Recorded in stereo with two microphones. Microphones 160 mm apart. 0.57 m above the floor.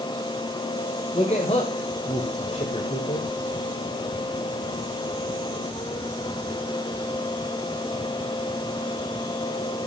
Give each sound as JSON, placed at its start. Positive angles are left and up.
{"t": 1.1, "sound": "a man speaking", "side_deg": 40, "distance_m": 1.9}